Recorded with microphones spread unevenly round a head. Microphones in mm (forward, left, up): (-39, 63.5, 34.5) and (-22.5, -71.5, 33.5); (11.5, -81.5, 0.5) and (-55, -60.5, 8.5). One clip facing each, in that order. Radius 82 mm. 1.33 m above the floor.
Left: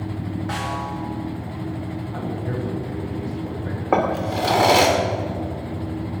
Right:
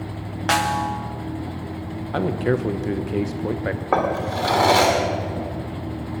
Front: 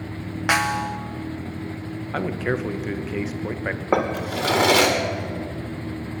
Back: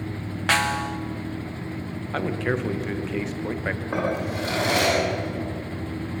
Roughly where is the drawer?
Ahead.